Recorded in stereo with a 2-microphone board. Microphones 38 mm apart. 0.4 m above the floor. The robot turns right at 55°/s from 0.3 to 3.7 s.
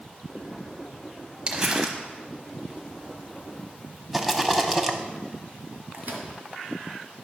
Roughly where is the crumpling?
Right.